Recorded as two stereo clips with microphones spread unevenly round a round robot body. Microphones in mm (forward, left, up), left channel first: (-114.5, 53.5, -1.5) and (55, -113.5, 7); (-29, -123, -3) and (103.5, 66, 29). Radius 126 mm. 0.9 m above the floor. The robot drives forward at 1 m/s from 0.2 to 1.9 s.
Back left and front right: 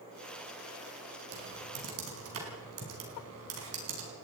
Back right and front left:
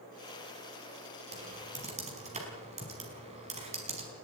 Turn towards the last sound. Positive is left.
turn(degrees=-5)